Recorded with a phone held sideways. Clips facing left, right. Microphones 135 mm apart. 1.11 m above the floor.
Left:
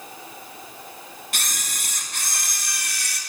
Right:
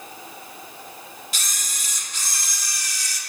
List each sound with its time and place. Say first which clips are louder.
1.3 s a camera shutter: left 2 dB; 60° left (ahead or behind), 2 m